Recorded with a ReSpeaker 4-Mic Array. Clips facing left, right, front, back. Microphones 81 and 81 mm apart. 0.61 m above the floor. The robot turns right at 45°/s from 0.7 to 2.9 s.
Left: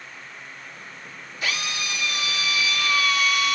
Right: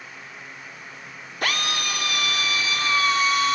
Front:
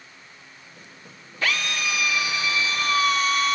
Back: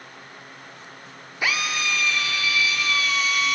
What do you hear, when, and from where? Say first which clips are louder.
1.4 s a drill: right 3 dB, back 1 dB; 105° right, 1.6 m; by 3.6 s 40° right, 1.6 m